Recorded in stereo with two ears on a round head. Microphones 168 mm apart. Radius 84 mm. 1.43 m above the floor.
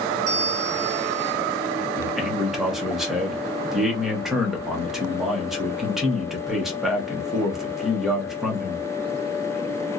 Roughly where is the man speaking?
Centre.